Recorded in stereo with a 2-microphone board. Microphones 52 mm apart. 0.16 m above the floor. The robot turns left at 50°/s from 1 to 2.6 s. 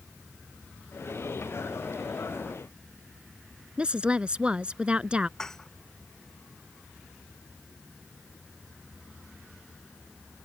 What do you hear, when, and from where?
3.8 s a woman speaking: 20° right (ahead or behind)
5.4 s dishes clattering: 10° left (ahead or behind)